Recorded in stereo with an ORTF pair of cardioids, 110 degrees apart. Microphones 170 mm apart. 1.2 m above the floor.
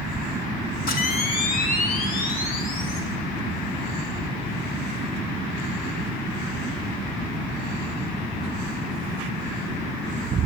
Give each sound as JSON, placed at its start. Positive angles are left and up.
{"t": 0.9, "sound": "a camera shutter", "azimuth_deg": 60, "distance_m": 4.0}